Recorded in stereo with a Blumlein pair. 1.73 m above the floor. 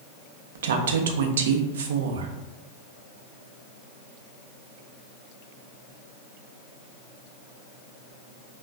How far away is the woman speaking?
About 0.5 m.